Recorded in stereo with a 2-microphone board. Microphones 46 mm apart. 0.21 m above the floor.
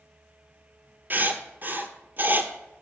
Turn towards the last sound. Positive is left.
turn(degrees=-45)  # may be behind; listen again after turning